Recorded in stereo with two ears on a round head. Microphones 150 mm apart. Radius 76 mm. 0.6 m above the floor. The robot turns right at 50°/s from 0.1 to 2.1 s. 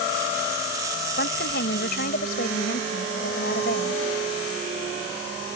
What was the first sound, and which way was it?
A woman speaking, 65° left.